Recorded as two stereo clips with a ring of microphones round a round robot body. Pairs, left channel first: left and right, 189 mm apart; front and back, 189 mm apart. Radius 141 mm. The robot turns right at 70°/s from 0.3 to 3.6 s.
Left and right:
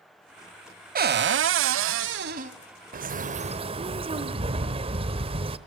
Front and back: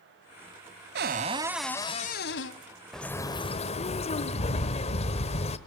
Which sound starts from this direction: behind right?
A cupboard door, at 0.9 s.